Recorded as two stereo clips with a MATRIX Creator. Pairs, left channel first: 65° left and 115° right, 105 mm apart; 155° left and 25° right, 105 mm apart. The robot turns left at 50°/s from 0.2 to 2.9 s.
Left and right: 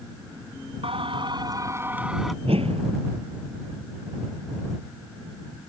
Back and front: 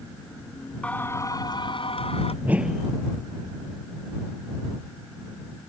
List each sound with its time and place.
0.8 s singing: 125° right; by 2.3 s 160° left
2.4 s a whoosh: 95° right; by 2.9 s 115° right